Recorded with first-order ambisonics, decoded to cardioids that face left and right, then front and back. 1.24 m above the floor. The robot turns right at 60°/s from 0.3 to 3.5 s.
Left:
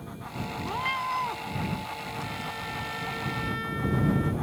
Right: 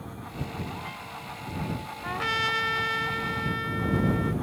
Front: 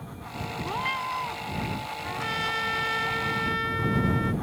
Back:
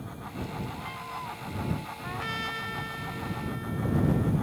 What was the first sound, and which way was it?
A cat meowing, 30° left.